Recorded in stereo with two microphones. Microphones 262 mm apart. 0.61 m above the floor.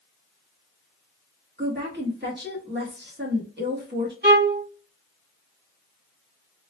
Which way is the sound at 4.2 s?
40° right (ahead or behind).